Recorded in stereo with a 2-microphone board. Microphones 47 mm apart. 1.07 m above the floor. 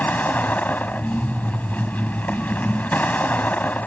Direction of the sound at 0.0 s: 35° left (ahead or behind).